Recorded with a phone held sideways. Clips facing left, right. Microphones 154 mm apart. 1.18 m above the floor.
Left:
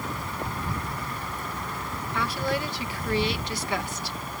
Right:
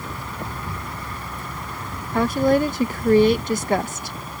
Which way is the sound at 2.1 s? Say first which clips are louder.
Right 11 dB; 45° right (ahead or behind).